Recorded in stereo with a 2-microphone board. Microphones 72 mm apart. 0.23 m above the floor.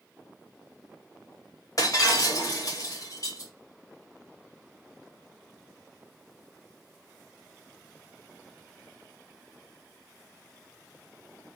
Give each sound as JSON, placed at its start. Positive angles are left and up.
{"t": 1.8, "sound": "breaking glass", "side_deg": 50, "distance_m": 5.5}